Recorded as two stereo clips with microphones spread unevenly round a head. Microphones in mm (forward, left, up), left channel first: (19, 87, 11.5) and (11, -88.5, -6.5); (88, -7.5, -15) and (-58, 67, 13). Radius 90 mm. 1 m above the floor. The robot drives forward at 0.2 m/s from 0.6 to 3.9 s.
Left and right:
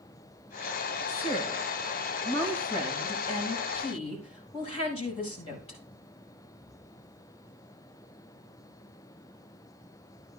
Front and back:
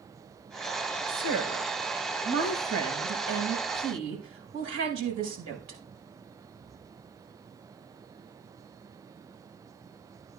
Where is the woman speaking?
145° left, 4.5 m; by 5.8 s 150° left, 5 m.